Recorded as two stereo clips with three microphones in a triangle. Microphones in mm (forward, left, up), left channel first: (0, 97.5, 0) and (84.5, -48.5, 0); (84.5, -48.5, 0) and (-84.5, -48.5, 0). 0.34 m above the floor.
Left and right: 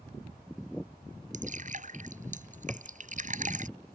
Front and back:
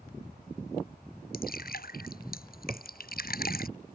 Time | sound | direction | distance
1.3 | dripping | 20° right | ?
2.7 | a cupboard door | 140° right | ?